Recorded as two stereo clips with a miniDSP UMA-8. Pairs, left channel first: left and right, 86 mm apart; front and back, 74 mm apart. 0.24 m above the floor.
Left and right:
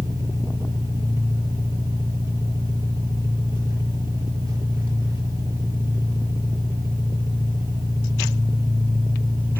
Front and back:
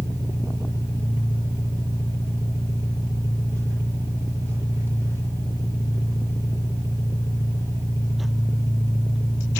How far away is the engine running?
About 5 m.